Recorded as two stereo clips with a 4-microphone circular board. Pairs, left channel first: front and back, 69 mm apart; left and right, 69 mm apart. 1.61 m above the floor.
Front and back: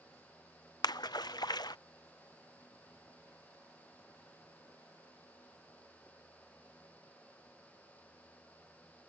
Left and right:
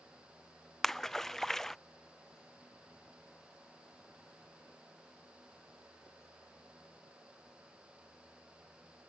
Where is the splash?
5° left.